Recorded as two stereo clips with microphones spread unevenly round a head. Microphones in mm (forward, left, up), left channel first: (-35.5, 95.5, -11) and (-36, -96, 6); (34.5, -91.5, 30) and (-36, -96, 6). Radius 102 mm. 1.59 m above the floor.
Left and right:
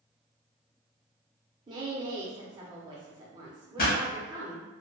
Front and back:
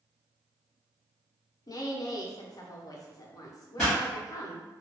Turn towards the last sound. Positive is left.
turn(degrees=65)